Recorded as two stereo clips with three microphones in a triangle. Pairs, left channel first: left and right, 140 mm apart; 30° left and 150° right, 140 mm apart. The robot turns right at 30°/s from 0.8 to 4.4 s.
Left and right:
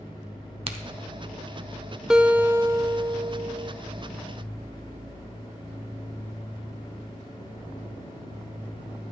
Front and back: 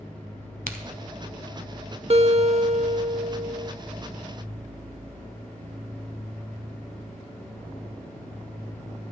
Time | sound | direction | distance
0.7 | a crack | 135° right | 0.8 m
2.1 | a guitar | 175° right | 0.5 m